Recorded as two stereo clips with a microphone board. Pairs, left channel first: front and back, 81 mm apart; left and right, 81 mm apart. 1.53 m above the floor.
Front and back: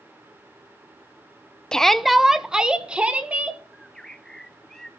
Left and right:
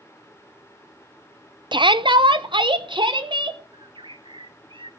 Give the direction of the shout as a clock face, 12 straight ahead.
3 o'clock.